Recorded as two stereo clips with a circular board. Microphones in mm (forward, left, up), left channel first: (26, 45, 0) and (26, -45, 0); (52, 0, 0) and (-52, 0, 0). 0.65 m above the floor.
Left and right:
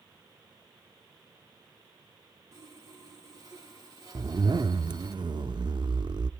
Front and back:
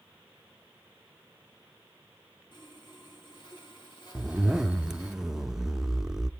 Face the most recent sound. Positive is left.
turn(degrees=-95)